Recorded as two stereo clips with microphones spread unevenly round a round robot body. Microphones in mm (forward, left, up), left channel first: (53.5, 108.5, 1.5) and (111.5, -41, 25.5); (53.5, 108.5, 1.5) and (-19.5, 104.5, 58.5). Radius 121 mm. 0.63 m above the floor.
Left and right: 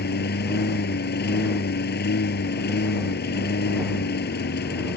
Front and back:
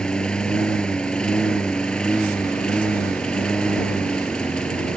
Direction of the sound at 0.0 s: 90° left.